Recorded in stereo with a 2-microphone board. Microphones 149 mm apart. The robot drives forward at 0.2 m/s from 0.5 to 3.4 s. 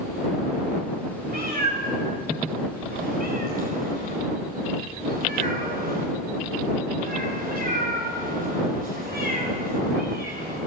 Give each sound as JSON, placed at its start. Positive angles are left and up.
{"t": 1.3, "sound": "a cat meowing", "side_deg": -90, "distance_m": 4.5}